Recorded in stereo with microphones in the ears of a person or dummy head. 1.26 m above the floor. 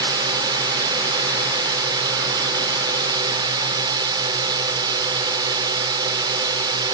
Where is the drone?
25° right (ahead or behind).